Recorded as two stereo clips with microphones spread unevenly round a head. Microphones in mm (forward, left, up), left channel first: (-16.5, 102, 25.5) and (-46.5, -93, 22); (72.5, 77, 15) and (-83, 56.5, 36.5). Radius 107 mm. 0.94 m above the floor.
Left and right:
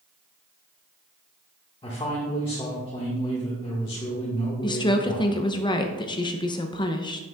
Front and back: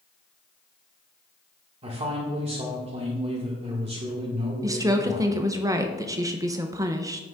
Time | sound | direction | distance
1.8 | a man speaking | 140° left | 1.5 m
4.6 | a woman speaking | 125° left | 0.6 m